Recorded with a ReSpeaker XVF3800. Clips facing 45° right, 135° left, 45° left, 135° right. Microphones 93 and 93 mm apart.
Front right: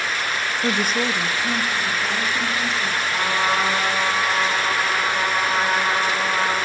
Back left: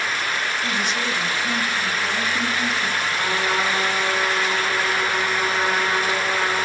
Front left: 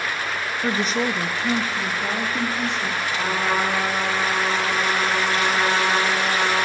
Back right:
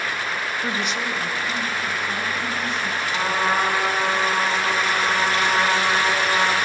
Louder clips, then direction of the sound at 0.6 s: Front right 3 dB, front left 7 dB; 25° right.